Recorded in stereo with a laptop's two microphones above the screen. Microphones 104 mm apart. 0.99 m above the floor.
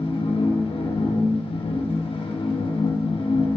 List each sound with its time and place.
0.0 s a machine running: 60° left (ahead or behind), 0.8 m